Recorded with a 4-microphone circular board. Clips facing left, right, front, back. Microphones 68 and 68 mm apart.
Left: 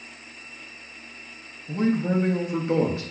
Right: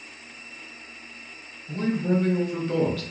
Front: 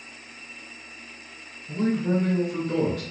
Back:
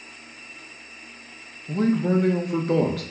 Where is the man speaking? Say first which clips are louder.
Left 1 dB, back 3 dB; 155° left, 0.5 m.